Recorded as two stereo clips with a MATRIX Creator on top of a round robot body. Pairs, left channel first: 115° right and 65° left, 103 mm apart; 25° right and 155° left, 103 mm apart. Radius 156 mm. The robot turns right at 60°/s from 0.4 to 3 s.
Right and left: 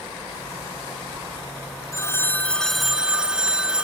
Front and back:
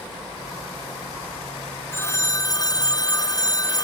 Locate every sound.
1.9 s a phone ringing: 75° right; by 3.9 s 10° right